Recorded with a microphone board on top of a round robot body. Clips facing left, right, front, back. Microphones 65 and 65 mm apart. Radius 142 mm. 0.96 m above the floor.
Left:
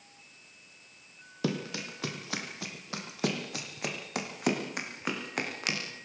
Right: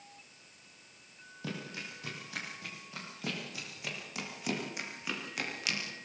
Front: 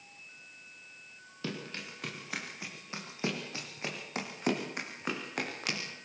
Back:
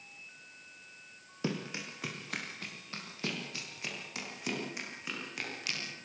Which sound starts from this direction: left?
Running footsteps, at 1.4 s.